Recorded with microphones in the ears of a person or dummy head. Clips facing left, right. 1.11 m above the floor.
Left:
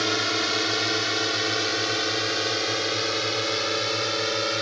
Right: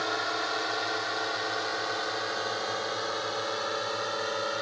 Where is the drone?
40° left (ahead or behind); by 4.6 s 35° left (ahead or behind).